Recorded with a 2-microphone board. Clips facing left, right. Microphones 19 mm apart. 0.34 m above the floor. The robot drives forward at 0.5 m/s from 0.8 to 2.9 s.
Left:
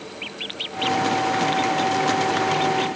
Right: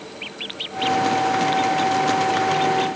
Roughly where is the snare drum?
No snare drum in this recording.